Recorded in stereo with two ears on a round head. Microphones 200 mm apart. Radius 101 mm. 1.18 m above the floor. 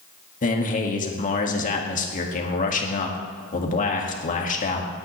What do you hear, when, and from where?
0.4 s a man speaking: 35° left (ahead or behind), 2.0 m